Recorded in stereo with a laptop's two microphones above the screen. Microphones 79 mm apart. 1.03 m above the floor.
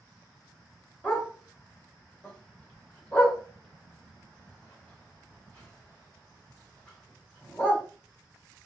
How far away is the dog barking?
About 1.0 m.